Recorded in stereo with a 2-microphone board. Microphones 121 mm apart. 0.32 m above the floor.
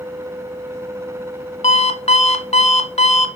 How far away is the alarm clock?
About 1.3 m.